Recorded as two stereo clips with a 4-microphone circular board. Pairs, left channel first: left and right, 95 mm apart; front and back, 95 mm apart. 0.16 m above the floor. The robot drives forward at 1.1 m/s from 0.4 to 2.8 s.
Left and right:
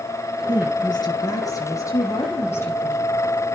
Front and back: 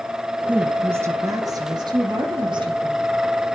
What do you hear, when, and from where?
0.5 s a woman speaking: 105° left, 2.0 m; by 3.2 s 150° left, 3.5 m